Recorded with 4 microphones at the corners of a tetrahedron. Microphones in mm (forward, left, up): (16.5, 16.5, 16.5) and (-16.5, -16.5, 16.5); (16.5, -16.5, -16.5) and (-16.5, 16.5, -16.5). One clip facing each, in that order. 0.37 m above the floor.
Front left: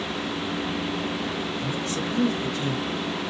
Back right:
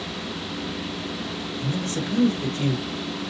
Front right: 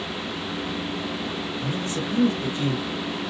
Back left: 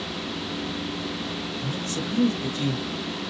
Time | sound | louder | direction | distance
1.6 | a man speaking | even, front right 3 dB | 105° right | 1.2 m